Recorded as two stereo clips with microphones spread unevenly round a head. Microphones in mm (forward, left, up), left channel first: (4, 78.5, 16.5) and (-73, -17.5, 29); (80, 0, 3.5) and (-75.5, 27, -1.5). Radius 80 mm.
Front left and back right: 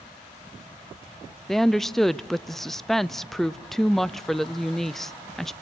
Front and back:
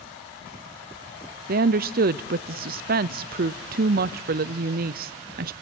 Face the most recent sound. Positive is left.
turn(degrees=140)